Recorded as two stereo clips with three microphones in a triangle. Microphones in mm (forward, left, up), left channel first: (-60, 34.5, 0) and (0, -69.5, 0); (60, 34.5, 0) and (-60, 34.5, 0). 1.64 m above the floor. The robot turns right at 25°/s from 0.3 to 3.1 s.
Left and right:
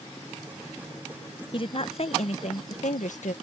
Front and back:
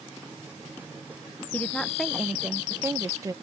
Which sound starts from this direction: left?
A woman speaking, at 1.5 s.